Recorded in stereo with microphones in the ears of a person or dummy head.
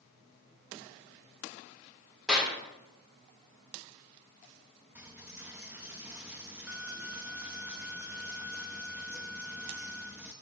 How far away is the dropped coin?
About 0.5 m.